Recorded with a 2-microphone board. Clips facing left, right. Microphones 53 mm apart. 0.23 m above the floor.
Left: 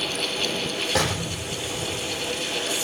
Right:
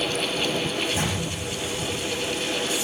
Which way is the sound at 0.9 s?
80° left.